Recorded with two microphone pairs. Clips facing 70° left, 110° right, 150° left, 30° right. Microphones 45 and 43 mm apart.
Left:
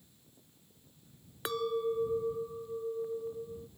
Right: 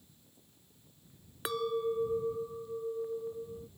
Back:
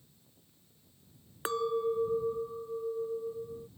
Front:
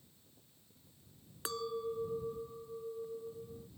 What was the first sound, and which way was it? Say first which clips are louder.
A clink: even, back 8 dB; 165° left.